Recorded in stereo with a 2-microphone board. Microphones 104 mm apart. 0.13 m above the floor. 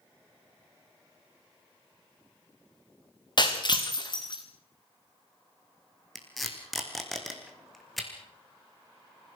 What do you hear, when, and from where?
3.4 s breaking glass: 45° left (ahead or behind), 3 m
6.2 s tape being pulled: centre (ahead or behind), 3.5 m